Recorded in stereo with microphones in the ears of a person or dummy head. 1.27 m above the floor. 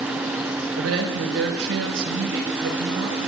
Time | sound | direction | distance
0.8 | a woman speaking | 80° right | 4.5 m